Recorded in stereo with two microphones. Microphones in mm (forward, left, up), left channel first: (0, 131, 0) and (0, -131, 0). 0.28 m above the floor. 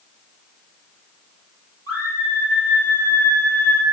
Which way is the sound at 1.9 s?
55° right (ahead or behind).